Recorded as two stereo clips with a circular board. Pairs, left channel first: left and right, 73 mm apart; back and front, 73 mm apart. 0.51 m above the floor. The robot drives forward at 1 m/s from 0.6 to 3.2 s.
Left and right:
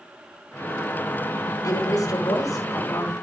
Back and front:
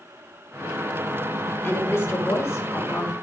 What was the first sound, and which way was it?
A woman speaking, 125° left.